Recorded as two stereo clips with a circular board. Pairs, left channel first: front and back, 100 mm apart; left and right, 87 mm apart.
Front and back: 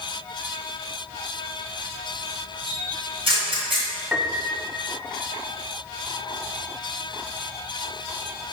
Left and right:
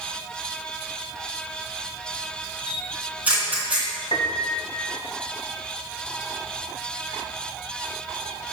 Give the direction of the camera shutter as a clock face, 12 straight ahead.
5 o'clock.